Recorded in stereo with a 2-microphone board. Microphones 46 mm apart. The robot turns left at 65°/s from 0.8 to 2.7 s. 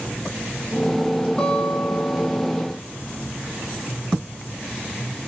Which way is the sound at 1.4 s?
160° left.